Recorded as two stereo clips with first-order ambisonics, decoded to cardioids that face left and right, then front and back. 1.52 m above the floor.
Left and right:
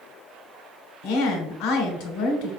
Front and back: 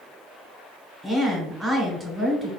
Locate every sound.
1.0 s a woman speaking: 105° left, 1.1 m